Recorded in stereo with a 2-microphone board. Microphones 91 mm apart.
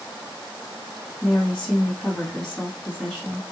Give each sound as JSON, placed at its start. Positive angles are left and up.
{"t": 1.2, "sound": "a woman speaking", "side_deg": 5, "distance_m": 1.8}